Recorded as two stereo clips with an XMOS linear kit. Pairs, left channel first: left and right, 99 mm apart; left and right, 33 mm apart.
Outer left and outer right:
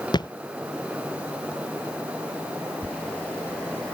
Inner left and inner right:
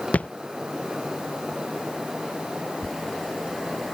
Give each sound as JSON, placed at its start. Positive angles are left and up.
{"t": 0.1, "sound": "a thud", "side_deg": 45}
{"t": 2.8, "sound": "a zipper", "side_deg": 10}